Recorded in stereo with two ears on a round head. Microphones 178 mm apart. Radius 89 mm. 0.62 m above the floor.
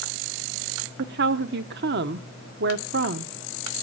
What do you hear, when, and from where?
1.0 s a woman speaking: 55° right (ahead or behind), 1.0 m